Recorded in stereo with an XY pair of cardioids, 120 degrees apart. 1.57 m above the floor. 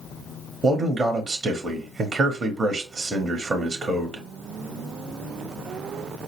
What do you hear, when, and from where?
0.6 s a man speaking: 25° right, 0.8 m